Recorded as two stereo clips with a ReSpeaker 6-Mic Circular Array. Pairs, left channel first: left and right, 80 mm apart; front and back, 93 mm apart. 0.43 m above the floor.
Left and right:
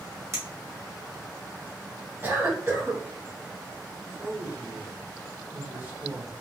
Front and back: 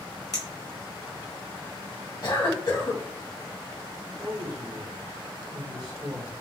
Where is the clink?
35° right, 1.3 m.